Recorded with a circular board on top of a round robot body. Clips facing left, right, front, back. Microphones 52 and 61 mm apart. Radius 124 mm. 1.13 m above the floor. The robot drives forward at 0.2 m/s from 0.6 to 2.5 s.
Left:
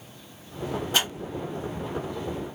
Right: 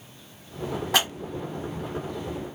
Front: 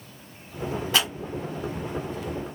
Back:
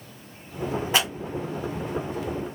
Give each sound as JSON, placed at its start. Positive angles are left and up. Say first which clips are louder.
{"t": 0.9, "sound": "scissors", "louder": "right 3 dB, back 1 dB", "azimuth_deg": -110, "distance_m": 1.7}